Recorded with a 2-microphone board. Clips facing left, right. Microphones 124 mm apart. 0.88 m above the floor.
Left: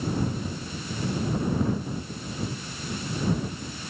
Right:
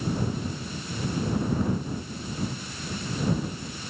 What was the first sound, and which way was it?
Only background noise.